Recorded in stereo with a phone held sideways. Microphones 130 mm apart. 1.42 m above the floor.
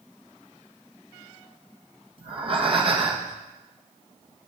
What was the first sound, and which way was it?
Breathing, 40° right (ahead or behind).